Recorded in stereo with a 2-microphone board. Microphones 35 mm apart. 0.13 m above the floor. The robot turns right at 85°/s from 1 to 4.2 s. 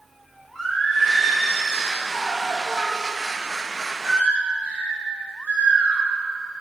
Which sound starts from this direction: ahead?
Singing, at 0.6 s.